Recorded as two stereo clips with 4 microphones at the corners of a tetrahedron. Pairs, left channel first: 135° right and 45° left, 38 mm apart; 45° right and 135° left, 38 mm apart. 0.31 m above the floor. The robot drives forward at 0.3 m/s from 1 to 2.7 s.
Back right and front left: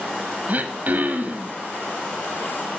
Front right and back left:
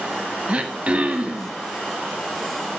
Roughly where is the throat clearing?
Left.